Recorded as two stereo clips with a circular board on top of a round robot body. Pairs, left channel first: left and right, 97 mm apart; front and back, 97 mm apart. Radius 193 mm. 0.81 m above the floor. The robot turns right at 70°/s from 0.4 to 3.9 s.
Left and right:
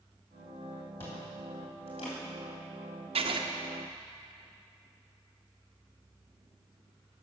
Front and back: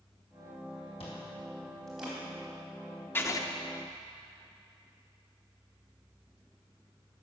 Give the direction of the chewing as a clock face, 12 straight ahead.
11 o'clock.